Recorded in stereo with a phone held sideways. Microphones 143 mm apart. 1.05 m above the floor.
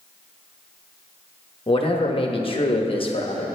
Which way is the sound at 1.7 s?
40° left (ahead or behind).